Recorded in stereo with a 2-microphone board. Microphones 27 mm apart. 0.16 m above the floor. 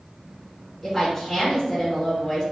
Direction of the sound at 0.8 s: 10° left (ahead or behind).